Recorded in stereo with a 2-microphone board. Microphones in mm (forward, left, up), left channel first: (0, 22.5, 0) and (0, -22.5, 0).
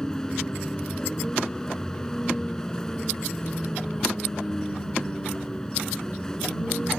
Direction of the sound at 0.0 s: 10° left (ahead or behind).